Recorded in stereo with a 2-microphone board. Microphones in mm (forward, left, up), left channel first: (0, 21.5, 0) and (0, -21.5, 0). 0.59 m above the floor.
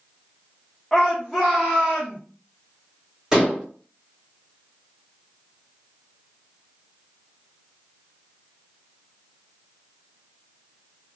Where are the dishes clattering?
15° right (ahead or behind), 1.9 m.